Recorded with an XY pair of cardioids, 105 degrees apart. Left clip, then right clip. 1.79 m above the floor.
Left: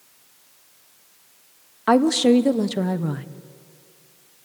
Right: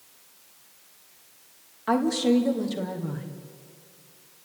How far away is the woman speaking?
About 1.2 m.